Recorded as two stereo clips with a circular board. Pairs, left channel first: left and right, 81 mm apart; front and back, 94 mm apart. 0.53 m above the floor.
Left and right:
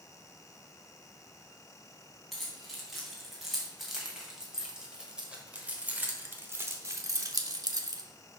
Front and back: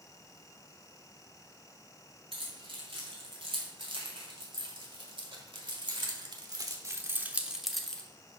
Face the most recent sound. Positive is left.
turn(degrees=-75)